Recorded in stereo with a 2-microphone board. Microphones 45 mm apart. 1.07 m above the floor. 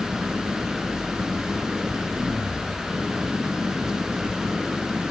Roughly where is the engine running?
Centre.